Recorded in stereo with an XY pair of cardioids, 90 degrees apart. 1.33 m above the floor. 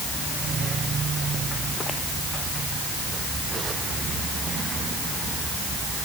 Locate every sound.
Only background noise.